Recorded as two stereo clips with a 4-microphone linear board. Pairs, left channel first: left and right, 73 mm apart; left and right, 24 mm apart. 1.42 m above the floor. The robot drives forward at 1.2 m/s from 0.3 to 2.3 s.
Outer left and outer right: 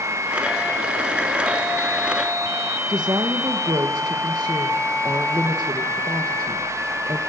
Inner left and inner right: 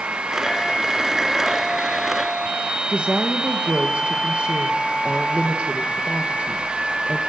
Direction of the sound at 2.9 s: 70° right (ahead or behind).